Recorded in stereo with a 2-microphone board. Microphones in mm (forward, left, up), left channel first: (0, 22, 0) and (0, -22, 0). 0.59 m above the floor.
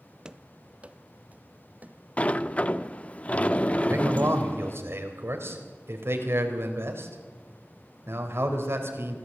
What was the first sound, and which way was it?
Running footsteps, 15° right (ahead or behind).